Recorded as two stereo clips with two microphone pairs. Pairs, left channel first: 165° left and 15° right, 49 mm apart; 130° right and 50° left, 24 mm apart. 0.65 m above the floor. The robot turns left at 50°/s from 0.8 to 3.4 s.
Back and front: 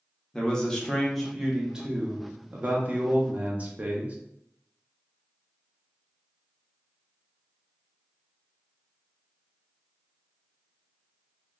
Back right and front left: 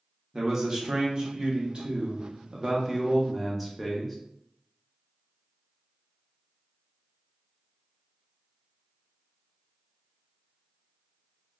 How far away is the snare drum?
No snare drum in this recording.